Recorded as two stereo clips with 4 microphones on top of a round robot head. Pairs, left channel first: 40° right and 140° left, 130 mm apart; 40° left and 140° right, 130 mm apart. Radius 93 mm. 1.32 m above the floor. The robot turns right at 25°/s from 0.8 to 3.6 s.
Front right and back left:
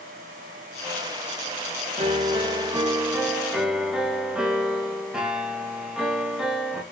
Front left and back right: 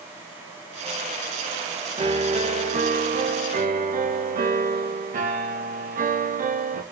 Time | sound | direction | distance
2.0 | a piano | straight behind | 2 m